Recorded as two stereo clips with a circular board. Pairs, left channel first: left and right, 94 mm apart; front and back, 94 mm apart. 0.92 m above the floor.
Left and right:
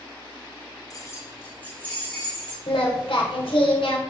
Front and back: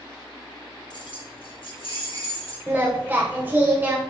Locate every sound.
0.9 s keys jangling: 40° left, 1.1 m; by 2.6 s 10° left, 3 m
2.7 s singing: 110° left, 1.7 m